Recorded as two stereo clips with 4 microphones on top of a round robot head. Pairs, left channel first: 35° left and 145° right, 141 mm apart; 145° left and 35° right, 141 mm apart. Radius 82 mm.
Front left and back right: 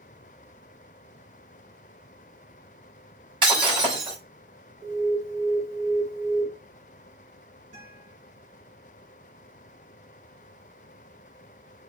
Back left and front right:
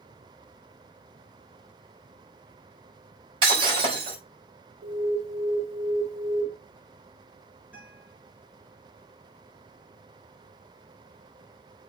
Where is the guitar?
115° right, 5.5 m.